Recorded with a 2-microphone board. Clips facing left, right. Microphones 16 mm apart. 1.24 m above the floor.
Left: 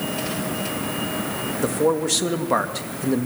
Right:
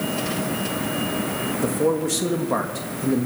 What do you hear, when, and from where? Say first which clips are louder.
1.6 s a man speaking: left 2 dB; 15° left (ahead or behind), 1.6 m